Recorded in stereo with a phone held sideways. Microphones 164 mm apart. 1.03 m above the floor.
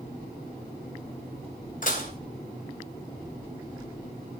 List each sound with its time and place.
1.8 s dishes clattering: 55° left (ahead or behind), 2.5 m